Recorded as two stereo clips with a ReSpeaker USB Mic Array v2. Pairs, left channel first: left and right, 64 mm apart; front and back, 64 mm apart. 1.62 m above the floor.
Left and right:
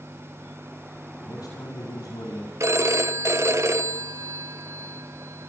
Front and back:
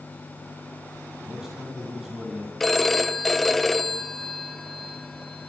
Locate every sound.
1.2 s a man speaking: 95° left, 5 m
2.6 s a phone ringing: 85° right, 0.7 m